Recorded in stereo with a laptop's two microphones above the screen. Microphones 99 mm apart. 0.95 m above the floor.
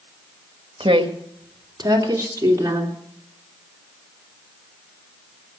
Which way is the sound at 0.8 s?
60° right (ahead or behind).